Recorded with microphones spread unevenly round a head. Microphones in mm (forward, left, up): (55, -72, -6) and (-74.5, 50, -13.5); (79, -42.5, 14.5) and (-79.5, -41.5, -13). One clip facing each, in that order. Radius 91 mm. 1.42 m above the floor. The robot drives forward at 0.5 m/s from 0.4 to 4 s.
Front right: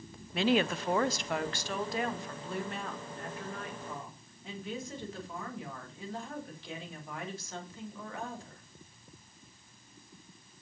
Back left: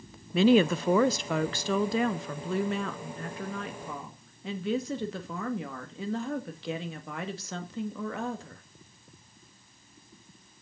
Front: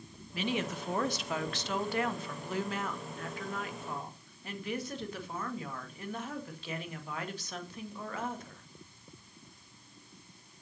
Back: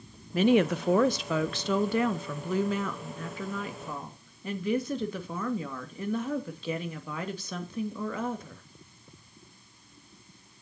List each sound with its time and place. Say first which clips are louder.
0.3 s a woman speaking: back left 7 dB, back 12 dB; 125° left, 0.6 m; by 8.6 s 165° left, 2 m